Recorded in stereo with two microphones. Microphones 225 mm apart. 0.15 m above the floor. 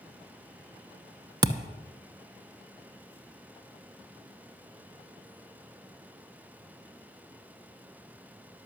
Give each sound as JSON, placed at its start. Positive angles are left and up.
{"t": 1.4, "sound": "a thud", "side_deg": -20, "distance_m": 0.8}